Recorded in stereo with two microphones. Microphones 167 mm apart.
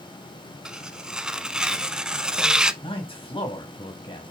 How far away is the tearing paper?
About 0.8 m.